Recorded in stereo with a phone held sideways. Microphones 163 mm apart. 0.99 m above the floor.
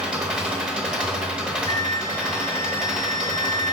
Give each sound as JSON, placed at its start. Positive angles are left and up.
{"t": 0.0, "sound": "an engine running", "side_deg": -5, "distance_m": 0.9}
{"t": 1.7, "sound": "a flute", "side_deg": 25, "distance_m": 1.2}